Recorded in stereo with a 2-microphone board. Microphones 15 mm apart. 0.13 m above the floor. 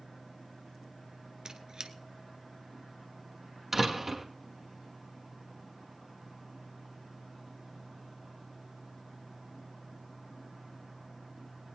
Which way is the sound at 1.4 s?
40° right (ahead or behind).